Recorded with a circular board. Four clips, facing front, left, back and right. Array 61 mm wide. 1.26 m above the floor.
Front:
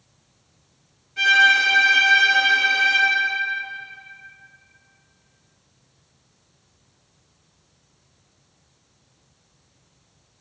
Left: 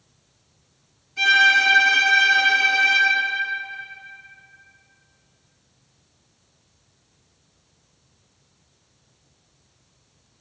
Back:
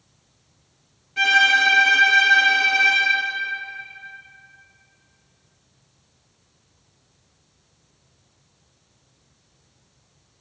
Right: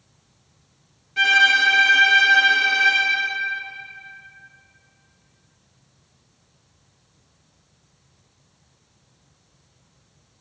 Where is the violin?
110° right, 2 m.